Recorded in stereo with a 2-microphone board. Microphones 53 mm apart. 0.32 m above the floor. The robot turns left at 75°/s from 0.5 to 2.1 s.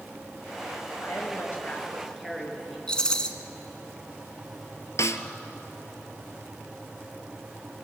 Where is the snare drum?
65° left (ahead or behind), 1.1 m.